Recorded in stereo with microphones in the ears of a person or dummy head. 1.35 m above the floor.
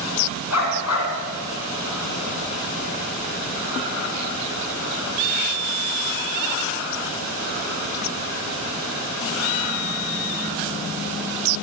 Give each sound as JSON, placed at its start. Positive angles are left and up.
{"t": 0.5, "sound": "a dog barking", "side_deg": 80, "distance_m": 6.0}